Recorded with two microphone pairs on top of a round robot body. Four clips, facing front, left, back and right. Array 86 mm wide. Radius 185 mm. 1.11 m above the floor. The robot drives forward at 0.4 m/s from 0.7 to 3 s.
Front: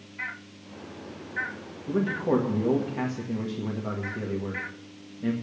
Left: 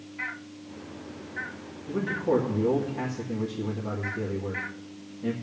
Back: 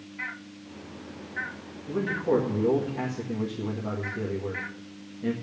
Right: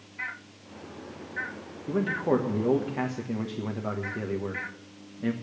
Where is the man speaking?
65° right, 1.8 m; by 5.3 s 80° right, 1.7 m.